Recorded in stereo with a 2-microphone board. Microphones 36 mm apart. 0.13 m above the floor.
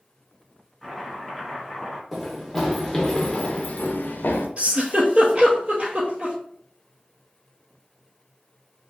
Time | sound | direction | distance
0.8 | chopping | 5° right (ahead or behind) | 1.3 m
2.1 | running footsteps | 5° right (ahead or behind) | 1.1 m
4.6 | a giggle | 40° right (ahead or behind) | 1.0 m